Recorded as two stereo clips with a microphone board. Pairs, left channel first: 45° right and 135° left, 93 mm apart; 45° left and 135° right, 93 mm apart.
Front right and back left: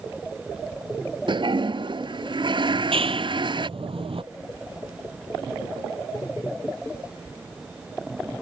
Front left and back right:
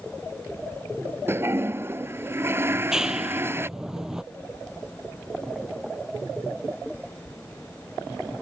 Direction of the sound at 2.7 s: 140° left.